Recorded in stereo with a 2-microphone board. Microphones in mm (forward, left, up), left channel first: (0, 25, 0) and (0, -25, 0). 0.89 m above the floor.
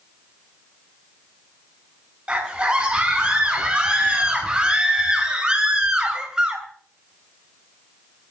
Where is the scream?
20° right (ahead or behind), 7.5 m; by 6.7 s 15° right (ahead or behind), 4 m.